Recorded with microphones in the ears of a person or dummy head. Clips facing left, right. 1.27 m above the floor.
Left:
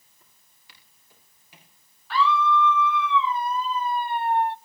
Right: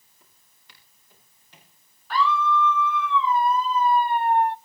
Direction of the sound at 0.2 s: 5° left (ahead or behind).